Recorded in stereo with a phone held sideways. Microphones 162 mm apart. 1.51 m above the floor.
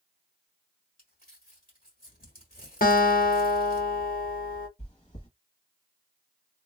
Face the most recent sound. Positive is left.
turn(degrees=45)  # may be behind; listen again after turning